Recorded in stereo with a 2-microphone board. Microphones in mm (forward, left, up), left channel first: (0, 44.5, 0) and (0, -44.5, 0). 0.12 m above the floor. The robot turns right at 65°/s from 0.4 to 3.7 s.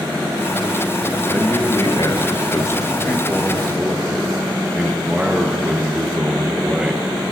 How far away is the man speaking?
About 1.7 m.